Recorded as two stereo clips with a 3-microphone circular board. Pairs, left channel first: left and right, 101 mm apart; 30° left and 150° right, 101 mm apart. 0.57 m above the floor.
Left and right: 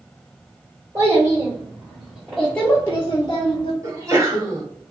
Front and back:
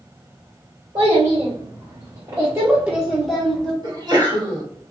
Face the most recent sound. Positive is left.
turn(degrees=-135)